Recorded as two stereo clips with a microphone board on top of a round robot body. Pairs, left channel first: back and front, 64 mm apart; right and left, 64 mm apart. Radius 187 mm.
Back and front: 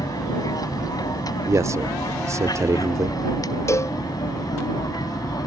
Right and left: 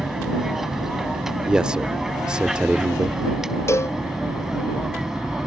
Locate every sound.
0.0 s an aircraft: 175° left
1.4 s a man speaking: 15° left
3.7 s a cowbell: 135° right